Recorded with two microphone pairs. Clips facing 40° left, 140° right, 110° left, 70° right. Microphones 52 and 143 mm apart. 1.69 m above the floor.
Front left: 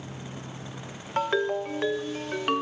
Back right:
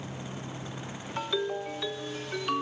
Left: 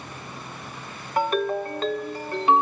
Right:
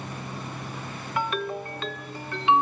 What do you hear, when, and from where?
1.2 s a ringtone: 70° left, 1.5 m